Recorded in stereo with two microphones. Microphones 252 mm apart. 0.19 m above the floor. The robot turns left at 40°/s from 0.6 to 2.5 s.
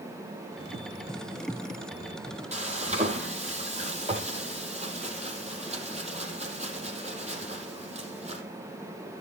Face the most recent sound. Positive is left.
turn(degrees=-25)  # may be behind; listen again after turning